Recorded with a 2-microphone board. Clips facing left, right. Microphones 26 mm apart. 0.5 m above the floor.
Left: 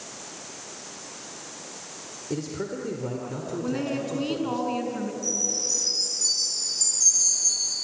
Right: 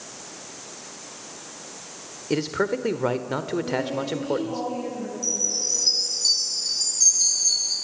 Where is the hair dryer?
No hair dryer in this recording.